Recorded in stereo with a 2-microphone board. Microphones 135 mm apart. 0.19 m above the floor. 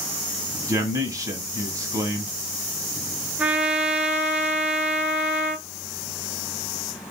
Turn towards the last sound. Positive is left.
turn(degrees=-10)  # may be behind; listen again after turning